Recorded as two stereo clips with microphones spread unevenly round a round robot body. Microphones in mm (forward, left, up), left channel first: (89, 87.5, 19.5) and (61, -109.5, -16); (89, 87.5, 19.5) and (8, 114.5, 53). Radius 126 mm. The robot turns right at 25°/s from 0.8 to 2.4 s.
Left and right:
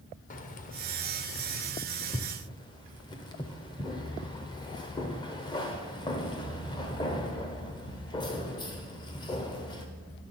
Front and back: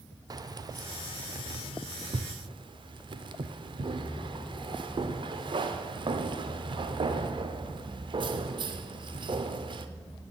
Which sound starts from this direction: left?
Keys jangling, at 0.3 s.